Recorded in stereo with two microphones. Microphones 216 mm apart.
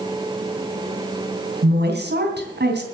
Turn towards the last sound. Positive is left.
turn(degrees=-55)  # may be behind; listen again after turning